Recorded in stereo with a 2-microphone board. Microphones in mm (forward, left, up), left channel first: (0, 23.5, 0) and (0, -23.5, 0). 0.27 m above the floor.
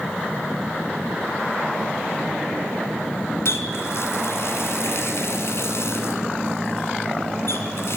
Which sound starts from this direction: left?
A running tap, at 3.5 s.